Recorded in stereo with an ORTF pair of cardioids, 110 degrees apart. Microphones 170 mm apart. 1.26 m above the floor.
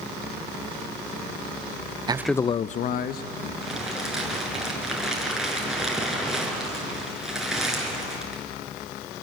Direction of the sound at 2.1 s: 30° right.